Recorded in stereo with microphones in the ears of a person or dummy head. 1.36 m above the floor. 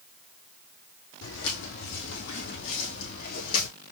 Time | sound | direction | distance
1.2 | footsteps | 65° left (ahead or behind) | 3 m